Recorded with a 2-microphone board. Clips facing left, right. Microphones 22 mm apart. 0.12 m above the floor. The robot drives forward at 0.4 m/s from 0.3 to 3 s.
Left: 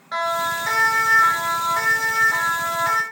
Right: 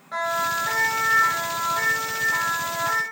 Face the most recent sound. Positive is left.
turn(degrees=75)  # may be behind; listen again after turning